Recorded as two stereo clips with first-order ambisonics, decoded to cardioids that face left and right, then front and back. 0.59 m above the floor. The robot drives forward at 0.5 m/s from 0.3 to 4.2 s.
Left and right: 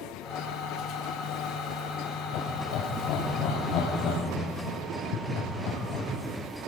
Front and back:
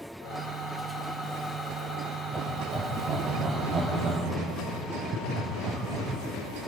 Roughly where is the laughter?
Left.